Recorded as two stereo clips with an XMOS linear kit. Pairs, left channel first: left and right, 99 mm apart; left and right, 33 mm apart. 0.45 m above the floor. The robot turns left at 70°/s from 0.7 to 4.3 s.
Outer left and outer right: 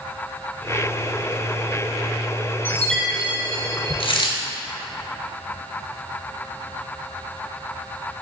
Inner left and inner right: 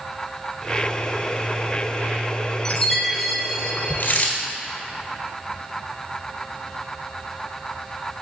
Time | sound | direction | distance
2.6 | a chime | 30° left | 1.0 m
4.0 | a dropped coin | 75° left (ahead or behind) | 1.4 m